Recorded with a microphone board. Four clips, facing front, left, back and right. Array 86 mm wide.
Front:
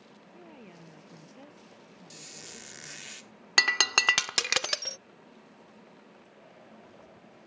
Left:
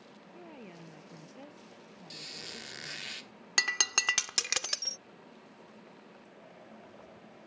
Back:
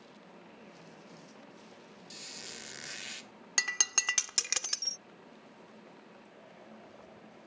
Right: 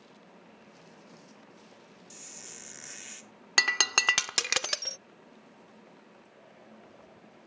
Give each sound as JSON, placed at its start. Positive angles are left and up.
{"t": 0.3, "sound": "a woman speaking", "azimuth_deg": 60}
{"t": 2.1, "sound": "a squeak", "azimuth_deg": 105}
{"t": 3.6, "sound": "breaking glass", "azimuth_deg": -35}